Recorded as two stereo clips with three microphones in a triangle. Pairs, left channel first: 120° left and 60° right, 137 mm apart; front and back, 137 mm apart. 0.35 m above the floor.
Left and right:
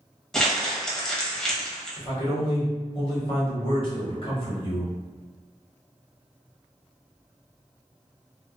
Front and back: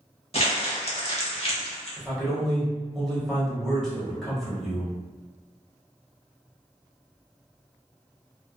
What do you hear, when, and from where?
0.3 s crumpling: 35° left, 0.7 m
2.0 s a man speaking: 90° left, 1.2 m